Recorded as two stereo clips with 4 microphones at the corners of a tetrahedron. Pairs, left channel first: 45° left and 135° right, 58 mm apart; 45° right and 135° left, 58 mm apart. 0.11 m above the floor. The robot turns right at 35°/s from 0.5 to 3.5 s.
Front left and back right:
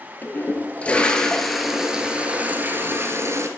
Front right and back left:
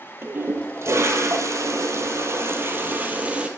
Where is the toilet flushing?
95° left, 0.8 m; by 3.5 s 160° right, 0.8 m.